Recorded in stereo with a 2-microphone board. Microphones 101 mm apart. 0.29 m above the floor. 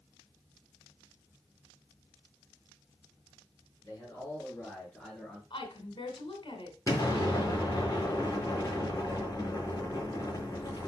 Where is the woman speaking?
55° left (ahead or behind), 2.5 m.